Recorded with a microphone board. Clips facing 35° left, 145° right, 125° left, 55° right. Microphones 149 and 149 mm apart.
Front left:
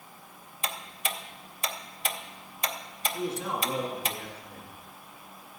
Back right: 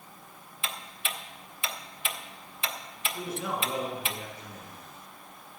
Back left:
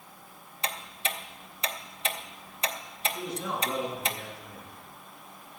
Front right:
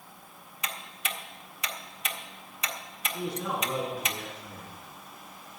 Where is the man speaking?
25° right, 6.5 m.